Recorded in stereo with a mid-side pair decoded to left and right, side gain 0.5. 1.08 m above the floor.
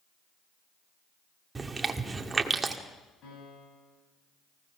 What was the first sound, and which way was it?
Chewing, 20° right.